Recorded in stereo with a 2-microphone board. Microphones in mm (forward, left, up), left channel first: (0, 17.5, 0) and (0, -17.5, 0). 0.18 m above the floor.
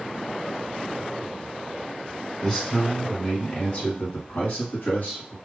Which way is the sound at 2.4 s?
25° left (ahead or behind).